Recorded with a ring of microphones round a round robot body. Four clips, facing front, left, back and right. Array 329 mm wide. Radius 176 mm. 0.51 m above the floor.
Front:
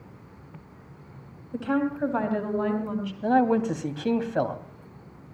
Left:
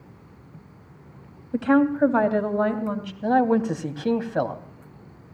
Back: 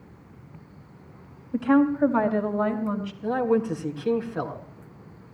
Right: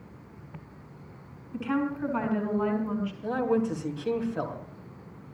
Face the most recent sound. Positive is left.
turn(degrees=55)